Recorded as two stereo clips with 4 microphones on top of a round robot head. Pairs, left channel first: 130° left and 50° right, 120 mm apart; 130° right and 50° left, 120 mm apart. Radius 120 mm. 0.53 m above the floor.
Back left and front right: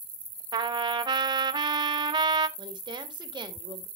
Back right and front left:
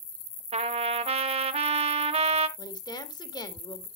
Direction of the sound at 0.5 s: 10° left.